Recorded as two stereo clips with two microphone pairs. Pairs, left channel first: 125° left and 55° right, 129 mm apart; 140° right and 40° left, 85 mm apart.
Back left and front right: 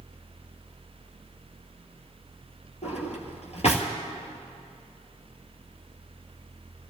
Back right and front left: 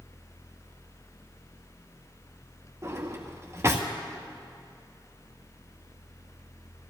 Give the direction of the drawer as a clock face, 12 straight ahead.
9 o'clock.